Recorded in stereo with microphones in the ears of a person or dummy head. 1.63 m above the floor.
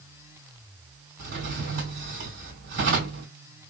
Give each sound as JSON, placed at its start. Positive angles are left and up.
{"t": 1.2, "sound": "a drawer", "side_deg": -55, "distance_m": 2.0}